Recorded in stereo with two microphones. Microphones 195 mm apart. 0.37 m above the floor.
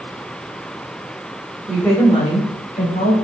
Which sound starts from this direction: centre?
A woman speaking, at 1.7 s.